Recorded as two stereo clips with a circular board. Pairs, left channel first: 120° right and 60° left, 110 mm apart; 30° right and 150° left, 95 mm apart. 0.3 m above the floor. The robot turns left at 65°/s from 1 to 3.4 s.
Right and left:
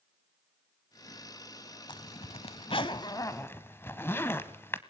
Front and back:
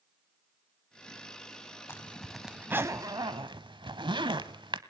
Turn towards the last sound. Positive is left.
turn(degrees=175)